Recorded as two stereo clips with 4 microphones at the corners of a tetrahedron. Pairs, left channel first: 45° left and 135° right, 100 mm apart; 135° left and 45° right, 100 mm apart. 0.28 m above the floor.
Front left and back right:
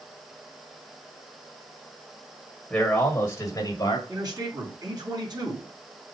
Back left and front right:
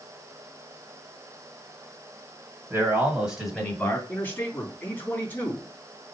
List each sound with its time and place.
2.7 s a man speaking: 25° right, 1.6 m; by 4.0 s 65° left, 1.9 m
4.1 s a man speaking: 160° right, 2.5 m